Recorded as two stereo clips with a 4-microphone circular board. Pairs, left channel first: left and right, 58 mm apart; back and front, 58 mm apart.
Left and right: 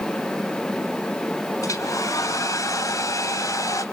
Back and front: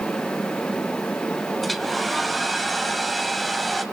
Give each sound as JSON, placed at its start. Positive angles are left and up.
{"t": 1.6, "sound": "a hair dryer", "azimuth_deg": 90, "distance_m": 2.5}